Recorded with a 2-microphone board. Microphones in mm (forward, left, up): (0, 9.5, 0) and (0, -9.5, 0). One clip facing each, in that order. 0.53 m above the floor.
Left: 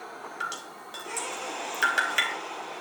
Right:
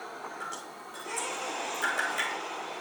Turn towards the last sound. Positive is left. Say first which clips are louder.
# left 4 dB
turn(degrees=60)  # may be behind; listen again after turning